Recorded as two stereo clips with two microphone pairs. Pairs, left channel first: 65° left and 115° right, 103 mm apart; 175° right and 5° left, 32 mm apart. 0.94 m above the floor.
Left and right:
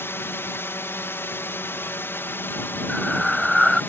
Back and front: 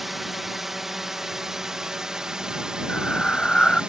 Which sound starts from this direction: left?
A drone, at 0.0 s.